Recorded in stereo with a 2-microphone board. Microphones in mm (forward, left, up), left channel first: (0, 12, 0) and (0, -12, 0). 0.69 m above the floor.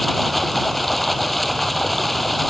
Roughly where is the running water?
Centre.